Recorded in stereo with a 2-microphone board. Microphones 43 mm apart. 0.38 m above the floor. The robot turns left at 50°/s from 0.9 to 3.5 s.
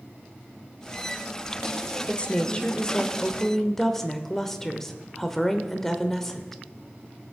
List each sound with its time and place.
2.1 s a woman speaking: 25° left (ahead or behind), 0.8 m; by 6.6 s 10° left (ahead or behind), 0.8 m